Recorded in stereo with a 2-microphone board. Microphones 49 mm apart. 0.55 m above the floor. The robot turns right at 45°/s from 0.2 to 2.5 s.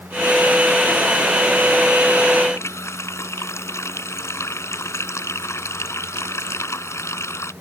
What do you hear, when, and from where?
2.5 s a running tap: 70° left (ahead or behind)